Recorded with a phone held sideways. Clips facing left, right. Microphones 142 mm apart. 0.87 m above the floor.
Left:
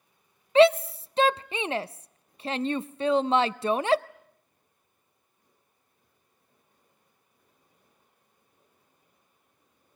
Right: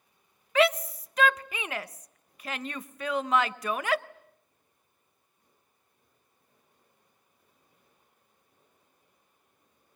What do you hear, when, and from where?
0.6 s a shout: 30° left (ahead or behind), 0.5 m